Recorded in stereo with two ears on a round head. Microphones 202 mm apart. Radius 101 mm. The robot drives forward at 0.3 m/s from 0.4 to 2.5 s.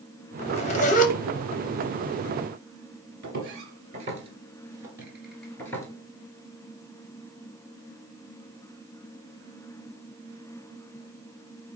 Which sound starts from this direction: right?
Footsteps, at 3.2 s.